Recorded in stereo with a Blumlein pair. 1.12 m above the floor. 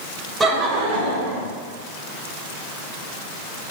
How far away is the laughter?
About 0.6 m.